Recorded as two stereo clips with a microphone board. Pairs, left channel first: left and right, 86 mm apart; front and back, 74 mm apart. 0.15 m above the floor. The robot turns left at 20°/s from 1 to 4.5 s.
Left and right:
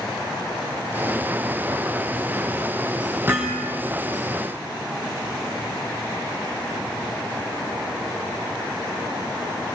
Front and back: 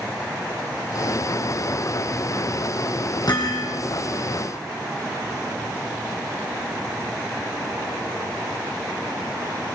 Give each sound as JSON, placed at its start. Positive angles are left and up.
{"t": 3.3, "sound": "hammering", "azimuth_deg": -25, "distance_m": 5.0}